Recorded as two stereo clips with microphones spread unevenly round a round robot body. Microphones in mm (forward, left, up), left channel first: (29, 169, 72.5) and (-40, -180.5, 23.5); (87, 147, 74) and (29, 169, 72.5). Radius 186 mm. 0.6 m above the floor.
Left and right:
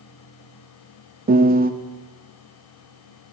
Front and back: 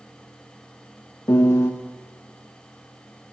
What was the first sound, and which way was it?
A piano, 55° right.